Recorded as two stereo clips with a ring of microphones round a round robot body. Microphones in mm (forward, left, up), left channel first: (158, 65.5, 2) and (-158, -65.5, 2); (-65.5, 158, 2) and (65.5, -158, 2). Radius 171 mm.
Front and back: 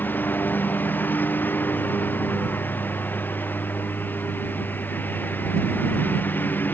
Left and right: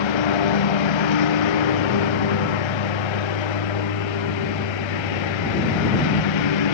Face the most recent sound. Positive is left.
turn(degrees=105)